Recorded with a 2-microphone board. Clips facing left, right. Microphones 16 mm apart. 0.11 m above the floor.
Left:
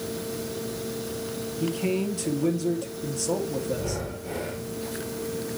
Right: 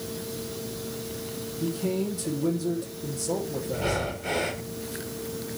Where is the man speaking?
60° left (ahead or behind), 3 m.